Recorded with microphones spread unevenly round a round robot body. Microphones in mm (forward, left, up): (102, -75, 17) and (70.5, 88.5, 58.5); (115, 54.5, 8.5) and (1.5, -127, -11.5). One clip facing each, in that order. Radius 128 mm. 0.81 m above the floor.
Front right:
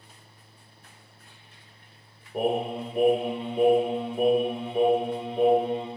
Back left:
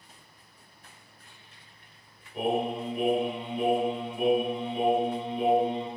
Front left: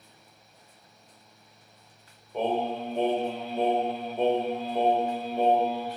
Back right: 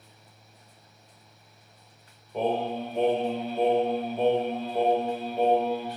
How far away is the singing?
About 1.7 m.